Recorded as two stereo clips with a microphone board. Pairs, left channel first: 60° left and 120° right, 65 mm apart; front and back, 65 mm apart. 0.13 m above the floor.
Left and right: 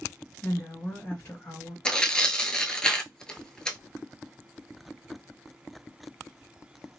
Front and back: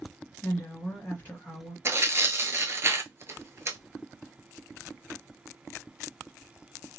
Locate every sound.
0.4 s a woman speaking: 55° left, 1.9 m
1.9 s tearing paper: 135° left, 0.6 m